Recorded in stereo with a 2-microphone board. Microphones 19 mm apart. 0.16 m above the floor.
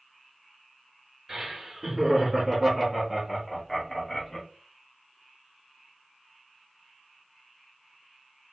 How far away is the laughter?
About 1.8 m.